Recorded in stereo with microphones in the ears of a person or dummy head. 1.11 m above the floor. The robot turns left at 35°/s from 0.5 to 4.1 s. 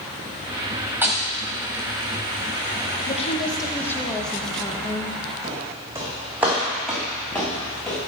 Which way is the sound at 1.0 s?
5° right (ahead or behind).